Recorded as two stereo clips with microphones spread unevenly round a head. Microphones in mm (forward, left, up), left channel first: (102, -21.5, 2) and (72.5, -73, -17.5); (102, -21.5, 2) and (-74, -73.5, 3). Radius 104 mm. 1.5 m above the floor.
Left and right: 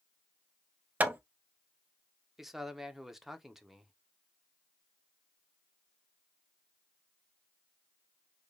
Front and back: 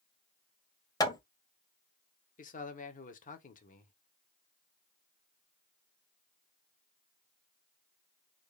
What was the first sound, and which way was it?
Hammering, 55° right.